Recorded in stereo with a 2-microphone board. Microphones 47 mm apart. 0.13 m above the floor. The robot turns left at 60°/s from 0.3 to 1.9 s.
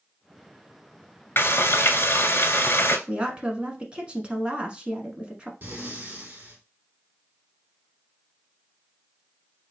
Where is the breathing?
40° right (ahead or behind), 1.5 m.